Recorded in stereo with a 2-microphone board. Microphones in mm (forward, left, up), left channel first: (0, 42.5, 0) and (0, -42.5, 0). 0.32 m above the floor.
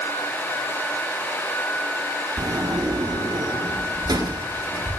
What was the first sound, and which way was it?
A sliding door, 55° right (ahead or behind).